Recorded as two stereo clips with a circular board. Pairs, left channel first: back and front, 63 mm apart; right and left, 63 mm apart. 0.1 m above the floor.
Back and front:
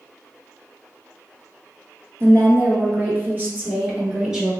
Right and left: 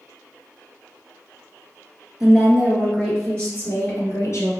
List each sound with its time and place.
2.2 s a woman speaking: 15° left, 1.5 m; by 4.5 s 75° right, 1.7 m